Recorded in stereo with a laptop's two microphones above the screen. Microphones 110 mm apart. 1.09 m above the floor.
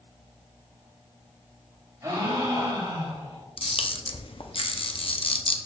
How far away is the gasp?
About 3 m.